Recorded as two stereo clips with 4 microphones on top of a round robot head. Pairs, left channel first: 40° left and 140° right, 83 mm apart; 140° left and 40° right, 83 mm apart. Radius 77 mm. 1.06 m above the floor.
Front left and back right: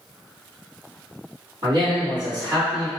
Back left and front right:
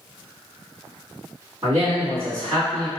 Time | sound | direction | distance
1.6 | a man speaking | 105° right | 1.9 m